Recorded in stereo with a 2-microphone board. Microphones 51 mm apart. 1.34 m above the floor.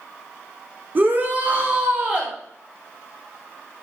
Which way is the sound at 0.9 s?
35° right (ahead or behind).